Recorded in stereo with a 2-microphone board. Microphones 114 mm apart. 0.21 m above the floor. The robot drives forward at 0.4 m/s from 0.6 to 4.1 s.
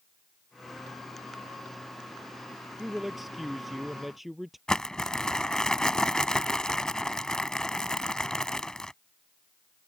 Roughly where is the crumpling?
Centre.